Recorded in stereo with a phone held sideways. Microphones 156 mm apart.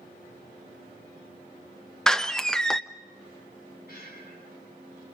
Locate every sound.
2.1 s a door slam: 5° left (ahead or behind), 0.7 m
3.9 s breathing: 80° left, 6.5 m